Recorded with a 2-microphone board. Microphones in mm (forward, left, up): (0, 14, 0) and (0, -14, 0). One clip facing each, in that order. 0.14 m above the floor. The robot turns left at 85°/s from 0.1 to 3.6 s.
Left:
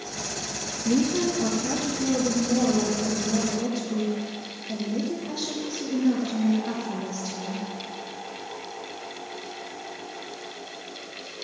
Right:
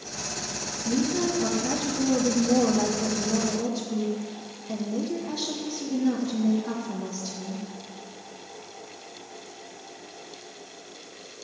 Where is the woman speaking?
35° left, 2.5 m; by 7.7 s 165° left, 2.5 m.